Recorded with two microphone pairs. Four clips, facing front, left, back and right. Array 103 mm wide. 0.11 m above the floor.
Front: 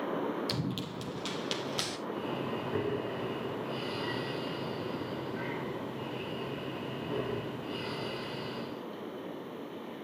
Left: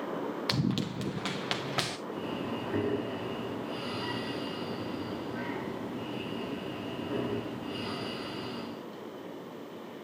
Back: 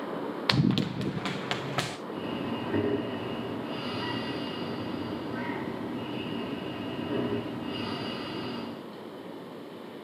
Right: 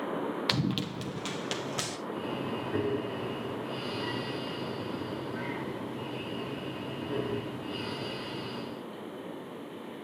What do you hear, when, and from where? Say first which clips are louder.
0.5 s running footsteps: even, back 9 dB; 160° right, 0.8 m; by 2.0 s 140° left, 2.5 m
2.1 s breathing: right 1 dB, back 2 dB; 160° left, 5.5 m